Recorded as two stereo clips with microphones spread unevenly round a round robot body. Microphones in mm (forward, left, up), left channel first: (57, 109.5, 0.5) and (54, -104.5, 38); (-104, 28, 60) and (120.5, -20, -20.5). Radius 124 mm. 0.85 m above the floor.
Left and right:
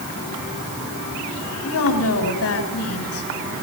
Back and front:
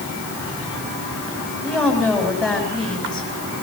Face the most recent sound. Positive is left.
turn(degrees=80)